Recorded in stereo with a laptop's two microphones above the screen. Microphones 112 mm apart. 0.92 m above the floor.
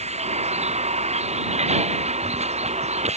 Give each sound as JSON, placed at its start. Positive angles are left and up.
{"t": 0.0, "sound": "a vehicle", "side_deg": -80}